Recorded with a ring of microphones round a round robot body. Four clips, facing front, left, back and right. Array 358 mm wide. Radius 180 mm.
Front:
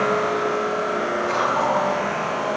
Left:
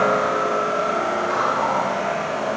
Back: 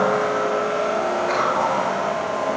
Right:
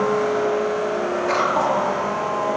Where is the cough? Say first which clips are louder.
Right 4 dB, front 2 dB; 115° right, 7 m.